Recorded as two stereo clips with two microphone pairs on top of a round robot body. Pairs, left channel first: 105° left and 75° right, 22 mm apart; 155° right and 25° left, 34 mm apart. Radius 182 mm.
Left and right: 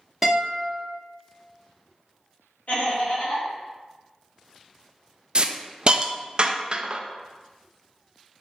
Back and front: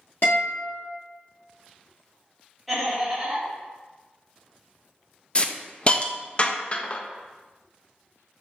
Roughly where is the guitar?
Behind right.